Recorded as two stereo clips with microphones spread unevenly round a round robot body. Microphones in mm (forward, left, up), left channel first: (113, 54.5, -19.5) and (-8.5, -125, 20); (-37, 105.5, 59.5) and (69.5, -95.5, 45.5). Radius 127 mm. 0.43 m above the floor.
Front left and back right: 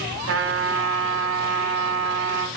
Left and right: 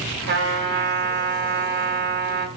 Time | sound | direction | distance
0.3 | a trumpet | 105° right | 3.5 m